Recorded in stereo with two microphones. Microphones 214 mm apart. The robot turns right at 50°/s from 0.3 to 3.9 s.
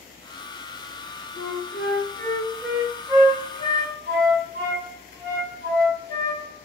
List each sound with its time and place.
1.4 s a flute: 60° left (ahead or behind), 1.2 m; by 6.4 s 55° right (ahead or behind), 1.2 m